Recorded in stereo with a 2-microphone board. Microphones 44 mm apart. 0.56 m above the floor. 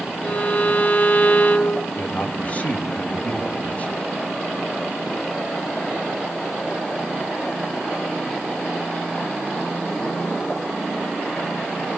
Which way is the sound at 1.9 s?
35° left (ahead or behind).